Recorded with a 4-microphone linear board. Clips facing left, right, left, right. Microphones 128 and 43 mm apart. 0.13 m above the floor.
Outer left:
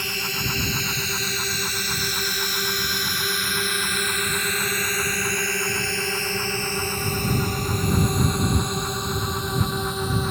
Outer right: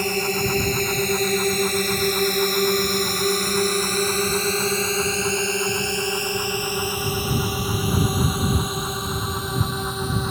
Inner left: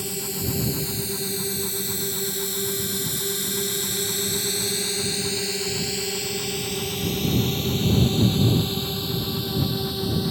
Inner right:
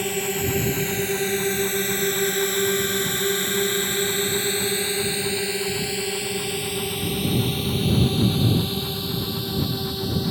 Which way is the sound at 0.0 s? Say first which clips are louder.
Outer right 9 dB, inner right 6 dB; 45° right (ahead or behind).